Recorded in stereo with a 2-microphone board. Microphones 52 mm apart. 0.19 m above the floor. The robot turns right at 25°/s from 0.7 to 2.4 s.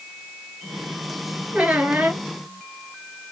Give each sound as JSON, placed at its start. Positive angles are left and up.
{"t": 1.5, "sound": "a squeak", "side_deg": -25, "distance_m": 1.2}